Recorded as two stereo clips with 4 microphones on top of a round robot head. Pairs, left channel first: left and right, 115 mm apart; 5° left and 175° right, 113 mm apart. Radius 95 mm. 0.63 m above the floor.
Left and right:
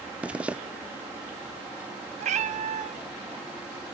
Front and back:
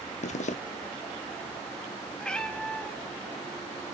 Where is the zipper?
10° right, 0.8 m.